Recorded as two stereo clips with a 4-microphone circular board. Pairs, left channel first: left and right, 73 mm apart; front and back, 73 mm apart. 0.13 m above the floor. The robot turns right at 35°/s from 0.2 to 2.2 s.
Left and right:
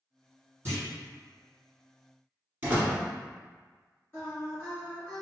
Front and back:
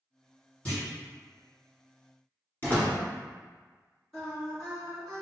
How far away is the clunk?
About 2.0 m.